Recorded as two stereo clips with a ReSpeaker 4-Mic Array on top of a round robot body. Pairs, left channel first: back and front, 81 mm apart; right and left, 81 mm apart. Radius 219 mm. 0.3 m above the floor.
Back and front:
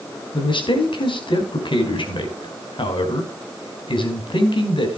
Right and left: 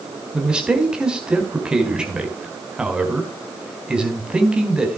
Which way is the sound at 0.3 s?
170° left.